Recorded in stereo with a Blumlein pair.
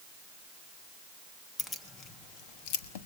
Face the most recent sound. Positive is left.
turn(degrees=55)